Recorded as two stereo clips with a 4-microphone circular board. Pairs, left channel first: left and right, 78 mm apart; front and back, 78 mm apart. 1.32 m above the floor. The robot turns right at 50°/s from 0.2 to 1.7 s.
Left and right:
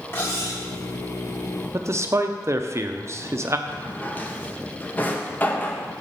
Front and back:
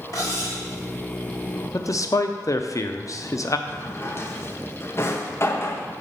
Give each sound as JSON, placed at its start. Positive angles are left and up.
{"t": 0.1, "sound": "cutlery clinking", "azimuth_deg": 35, "distance_m": 1.6}
{"t": 1.7, "sound": "a man speaking", "azimuth_deg": -40, "distance_m": 0.5}
{"t": 3.7, "sound": "a drawer", "azimuth_deg": 35, "distance_m": 0.6}